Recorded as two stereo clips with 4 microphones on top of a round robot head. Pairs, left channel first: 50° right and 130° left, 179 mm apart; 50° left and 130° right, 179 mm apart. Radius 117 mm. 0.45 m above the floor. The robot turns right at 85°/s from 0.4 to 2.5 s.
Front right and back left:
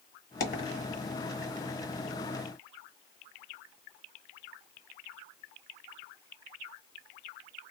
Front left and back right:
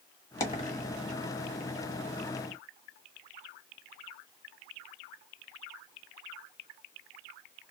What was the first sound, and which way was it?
A dropped coin, 20° right.